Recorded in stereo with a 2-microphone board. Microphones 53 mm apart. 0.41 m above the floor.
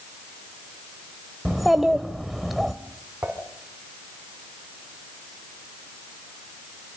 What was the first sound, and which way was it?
A child speaking, 5° right (ahead or behind).